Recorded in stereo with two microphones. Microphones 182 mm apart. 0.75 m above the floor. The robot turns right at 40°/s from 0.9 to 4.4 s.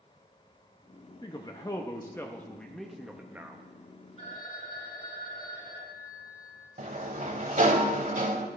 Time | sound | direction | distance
1.2 | a man speaking | 25° left (ahead or behind) | 0.6 m
4.2 | a phone ringing | 35° left (ahead or behind) | 3.5 m
6.8 | a sliding door | 45° right (ahead or behind) | 0.8 m